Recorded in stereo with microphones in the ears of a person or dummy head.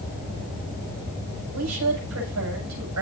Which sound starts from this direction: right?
A woman speaking, at 1.5 s.